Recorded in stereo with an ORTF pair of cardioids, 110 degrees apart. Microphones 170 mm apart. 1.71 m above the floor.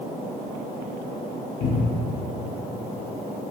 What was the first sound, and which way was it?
A cupboard door, 60° left.